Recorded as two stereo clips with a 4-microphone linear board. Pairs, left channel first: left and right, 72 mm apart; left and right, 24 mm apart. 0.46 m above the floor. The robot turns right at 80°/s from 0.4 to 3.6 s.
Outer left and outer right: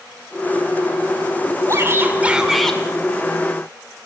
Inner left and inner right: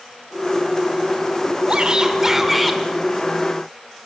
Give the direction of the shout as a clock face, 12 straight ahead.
2 o'clock.